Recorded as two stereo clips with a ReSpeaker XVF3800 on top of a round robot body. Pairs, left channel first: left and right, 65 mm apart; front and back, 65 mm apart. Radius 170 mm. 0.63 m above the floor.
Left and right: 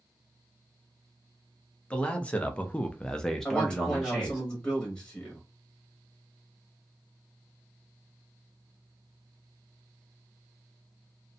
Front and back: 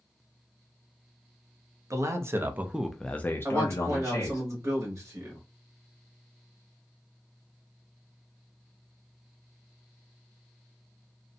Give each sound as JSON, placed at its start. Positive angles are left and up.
{"t": 1.9, "sound": "a man speaking", "azimuth_deg": 160, "distance_m": 0.8}
{"t": 3.5, "sound": "a man speaking", "azimuth_deg": 160, "distance_m": 1.3}